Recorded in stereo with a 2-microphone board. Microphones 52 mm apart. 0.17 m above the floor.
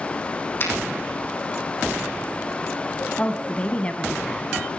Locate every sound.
0.6 s a finger snap: 40° left (ahead or behind), 5.5 m
3.2 s a woman speaking: 20° left (ahead or behind), 1.3 m